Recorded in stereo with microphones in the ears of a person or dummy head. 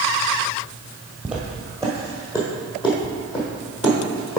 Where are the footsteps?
5° right (ahead or behind), 1.3 m; by 4.4 s 35° left (ahead or behind), 2.5 m.